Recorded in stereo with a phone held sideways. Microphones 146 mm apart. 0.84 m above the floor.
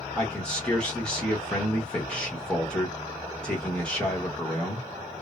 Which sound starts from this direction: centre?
A man speaking, at 0.1 s.